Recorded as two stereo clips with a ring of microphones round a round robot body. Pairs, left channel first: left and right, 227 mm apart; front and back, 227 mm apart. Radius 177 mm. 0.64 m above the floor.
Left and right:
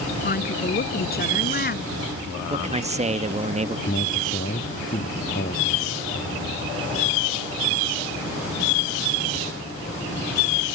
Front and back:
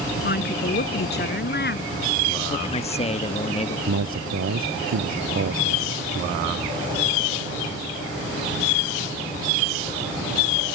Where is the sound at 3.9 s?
155° left.